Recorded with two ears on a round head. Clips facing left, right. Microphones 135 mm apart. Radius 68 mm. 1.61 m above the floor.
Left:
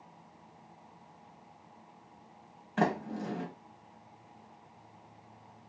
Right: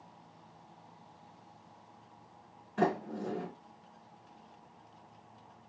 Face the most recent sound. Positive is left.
turn(degrees=80)